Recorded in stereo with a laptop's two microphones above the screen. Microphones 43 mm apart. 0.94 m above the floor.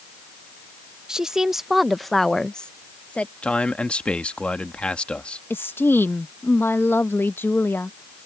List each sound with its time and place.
1.1 s a woman speaking: 10° right (ahead or behind); by 3.3 s 35° left (ahead or behind)
3.4 s a man speaking: 25° left (ahead or behind)
5.5 s a woman speaking: 55° left (ahead or behind)